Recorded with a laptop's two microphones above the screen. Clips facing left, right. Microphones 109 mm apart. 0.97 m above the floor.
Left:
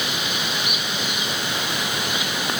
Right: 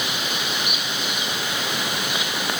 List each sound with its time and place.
Only background noise.